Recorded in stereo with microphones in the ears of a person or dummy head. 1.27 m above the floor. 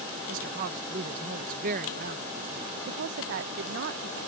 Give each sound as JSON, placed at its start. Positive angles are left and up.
{"t": 0.3, "sound": "a woman speaking", "side_deg": -45}
{"t": 2.9, "sound": "a woman speaking", "side_deg": -60}